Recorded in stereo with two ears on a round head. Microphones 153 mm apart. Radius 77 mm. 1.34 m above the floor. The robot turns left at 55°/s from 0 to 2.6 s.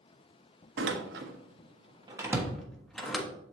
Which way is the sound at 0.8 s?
70° right (ahead or behind).